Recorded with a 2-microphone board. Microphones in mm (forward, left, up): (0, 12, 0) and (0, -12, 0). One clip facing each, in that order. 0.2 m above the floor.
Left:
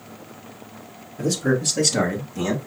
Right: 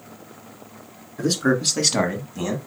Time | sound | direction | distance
1.2 | a man speaking | 65° right (ahead or behind) | 2 m